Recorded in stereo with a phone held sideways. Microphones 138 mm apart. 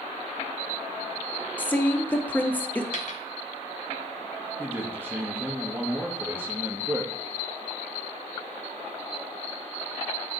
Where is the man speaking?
15° right (ahead or behind), 1.5 m.